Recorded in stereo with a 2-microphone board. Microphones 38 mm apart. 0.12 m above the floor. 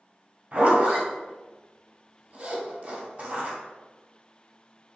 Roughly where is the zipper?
Right.